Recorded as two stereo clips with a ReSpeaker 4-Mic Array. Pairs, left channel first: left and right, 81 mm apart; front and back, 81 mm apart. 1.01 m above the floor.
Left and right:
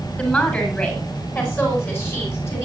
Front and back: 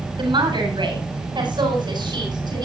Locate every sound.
0.2 s a woman speaking: 165° left, 8 m; by 2.6 s 150° left, 9.5 m